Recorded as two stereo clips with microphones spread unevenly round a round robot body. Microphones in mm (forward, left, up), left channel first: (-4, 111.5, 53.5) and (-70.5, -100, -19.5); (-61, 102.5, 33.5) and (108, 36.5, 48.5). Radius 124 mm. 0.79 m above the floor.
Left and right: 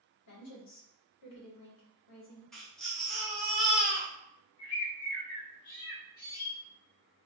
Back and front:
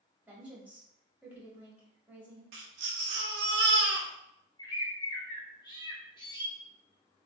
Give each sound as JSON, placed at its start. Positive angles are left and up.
{"t": 0.3, "sound": "a woman speaking", "azimuth_deg": 60, "distance_m": 2.0}
{"t": 2.5, "sound": "a baby crying", "azimuth_deg": -15, "distance_m": 1.0}
{"t": 4.6, "sound": "a bird", "azimuth_deg": 100, "distance_m": 2.5}